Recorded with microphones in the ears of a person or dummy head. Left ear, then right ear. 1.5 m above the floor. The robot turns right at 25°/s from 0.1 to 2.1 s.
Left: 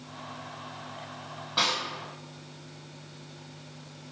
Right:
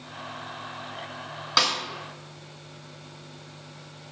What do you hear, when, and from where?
1.6 s a snare drum: 55° right (ahead or behind), 0.7 m; by 1.8 s 60° right (ahead or behind), 0.7 m